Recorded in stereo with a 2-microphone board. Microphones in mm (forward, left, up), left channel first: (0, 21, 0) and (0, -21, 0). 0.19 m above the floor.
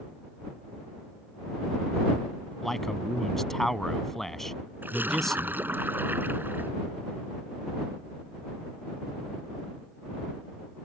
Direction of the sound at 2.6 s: 5° left (ahead or behind).